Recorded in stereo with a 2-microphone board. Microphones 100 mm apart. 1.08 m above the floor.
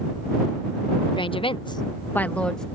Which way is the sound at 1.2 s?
50° left (ahead or behind).